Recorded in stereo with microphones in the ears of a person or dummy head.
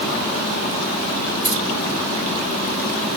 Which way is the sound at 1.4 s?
70° right (ahead or behind).